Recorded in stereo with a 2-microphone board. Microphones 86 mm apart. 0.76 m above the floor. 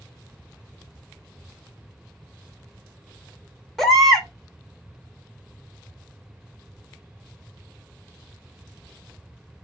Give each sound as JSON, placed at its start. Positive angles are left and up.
{"t": 3.8, "sound": "a baby crying", "side_deg": 5, "distance_m": 0.9}